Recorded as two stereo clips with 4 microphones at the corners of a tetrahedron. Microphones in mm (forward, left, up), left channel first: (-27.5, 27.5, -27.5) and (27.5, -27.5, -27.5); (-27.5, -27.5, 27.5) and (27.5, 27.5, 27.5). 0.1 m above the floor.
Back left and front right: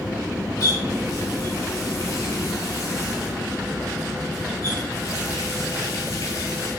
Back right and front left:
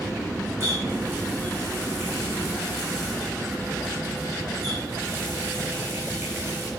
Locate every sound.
0.6 s a running tap: 90° left, 6.5 m